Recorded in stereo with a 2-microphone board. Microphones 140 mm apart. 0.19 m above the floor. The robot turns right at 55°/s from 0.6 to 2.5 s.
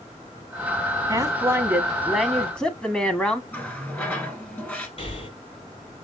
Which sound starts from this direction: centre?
A running tap, at 3.5 s.